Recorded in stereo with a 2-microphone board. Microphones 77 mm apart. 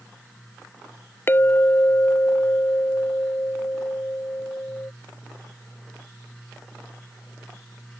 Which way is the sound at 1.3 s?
30° left (ahead or behind).